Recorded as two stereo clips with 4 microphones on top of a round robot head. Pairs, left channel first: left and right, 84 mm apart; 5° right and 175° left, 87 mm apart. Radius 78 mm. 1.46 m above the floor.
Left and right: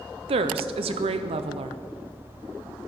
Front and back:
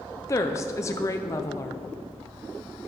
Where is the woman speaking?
70° right, 0.5 m.